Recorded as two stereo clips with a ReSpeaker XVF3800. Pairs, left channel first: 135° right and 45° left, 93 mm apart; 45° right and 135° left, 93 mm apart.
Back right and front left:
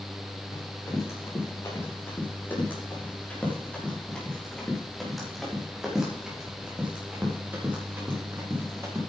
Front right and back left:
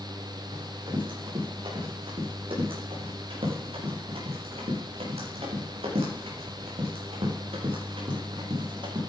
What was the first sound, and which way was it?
Running footsteps, 170° left.